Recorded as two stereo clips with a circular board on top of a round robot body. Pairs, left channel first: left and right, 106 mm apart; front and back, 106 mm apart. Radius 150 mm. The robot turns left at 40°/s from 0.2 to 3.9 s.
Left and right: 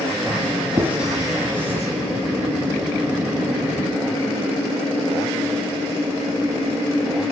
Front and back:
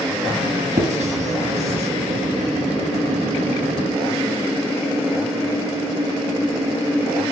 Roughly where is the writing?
Behind.